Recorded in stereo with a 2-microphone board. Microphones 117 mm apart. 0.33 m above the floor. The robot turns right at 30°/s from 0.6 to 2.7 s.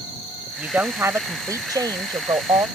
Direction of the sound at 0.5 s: 160° right.